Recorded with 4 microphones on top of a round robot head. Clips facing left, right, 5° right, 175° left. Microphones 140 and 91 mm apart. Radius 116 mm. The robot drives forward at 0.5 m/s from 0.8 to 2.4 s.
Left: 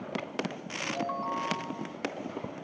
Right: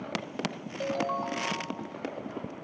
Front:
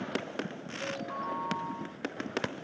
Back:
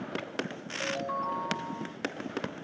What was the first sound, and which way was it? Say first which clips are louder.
A ringtone: right 4 dB, back 4 dB; 125° right.